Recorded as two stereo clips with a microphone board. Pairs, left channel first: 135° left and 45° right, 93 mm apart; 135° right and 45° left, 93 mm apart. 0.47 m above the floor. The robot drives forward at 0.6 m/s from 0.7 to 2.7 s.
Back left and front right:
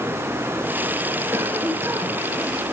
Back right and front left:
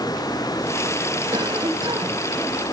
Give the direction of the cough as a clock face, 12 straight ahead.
12 o'clock.